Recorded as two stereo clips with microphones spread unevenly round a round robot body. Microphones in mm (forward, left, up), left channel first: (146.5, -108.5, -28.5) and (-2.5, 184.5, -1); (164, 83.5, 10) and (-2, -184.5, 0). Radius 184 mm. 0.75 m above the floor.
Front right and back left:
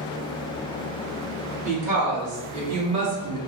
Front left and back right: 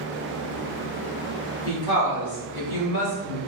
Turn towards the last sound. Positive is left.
turn(degrees=90)